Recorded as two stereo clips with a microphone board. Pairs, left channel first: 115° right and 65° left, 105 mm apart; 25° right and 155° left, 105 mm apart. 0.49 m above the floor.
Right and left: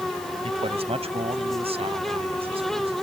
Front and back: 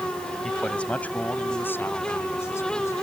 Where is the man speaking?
60° left; by 2.9 s 40° left.